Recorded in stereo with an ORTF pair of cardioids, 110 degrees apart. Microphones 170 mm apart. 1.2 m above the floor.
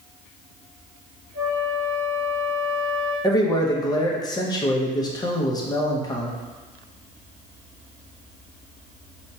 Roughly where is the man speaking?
Ahead left.